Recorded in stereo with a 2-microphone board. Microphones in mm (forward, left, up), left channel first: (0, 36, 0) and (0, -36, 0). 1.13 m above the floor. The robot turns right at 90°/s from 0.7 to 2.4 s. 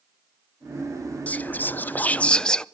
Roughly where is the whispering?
Left.